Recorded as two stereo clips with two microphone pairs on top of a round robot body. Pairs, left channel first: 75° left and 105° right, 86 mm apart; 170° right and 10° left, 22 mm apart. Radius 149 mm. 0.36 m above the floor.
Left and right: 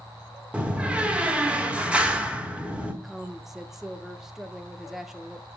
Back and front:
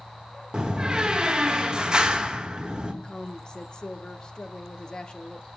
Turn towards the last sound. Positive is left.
turn(degrees=170)